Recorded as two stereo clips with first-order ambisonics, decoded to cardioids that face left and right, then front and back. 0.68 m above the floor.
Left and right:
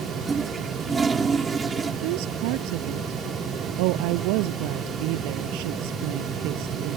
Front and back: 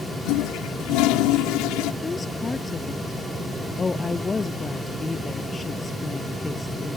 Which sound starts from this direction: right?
A woman speaking, at 2.0 s.